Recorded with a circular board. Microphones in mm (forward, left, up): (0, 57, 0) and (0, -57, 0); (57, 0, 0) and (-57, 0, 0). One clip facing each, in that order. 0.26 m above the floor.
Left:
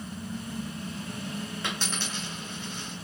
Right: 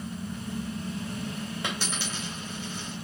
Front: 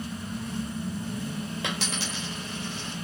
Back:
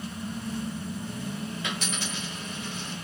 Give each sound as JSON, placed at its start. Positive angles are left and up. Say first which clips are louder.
{"t": 1.6, "sound": "a dropped coin", "louder": "right 1 dB, front 1 dB", "azimuth_deg": -10, "distance_m": 1.9}